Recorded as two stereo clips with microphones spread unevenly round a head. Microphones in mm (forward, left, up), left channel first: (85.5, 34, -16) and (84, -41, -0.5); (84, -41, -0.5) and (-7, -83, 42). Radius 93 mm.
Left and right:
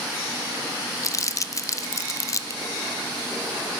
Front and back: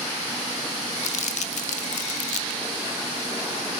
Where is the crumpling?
45° left, 0.7 m.